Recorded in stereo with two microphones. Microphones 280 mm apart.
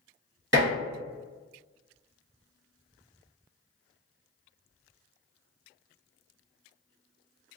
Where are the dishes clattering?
45° right (ahead or behind), 1.3 m.